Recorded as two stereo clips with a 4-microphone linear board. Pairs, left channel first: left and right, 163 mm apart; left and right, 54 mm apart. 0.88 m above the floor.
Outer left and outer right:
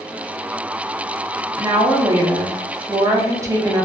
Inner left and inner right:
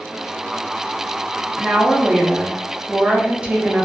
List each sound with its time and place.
1.6 s a woman speaking: 20° right (ahead or behind), 0.6 m